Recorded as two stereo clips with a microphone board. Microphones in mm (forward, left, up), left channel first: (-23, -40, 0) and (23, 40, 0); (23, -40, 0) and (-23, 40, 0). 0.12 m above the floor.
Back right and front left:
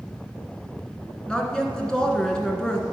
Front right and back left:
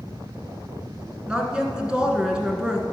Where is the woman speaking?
Straight behind, 1.5 m.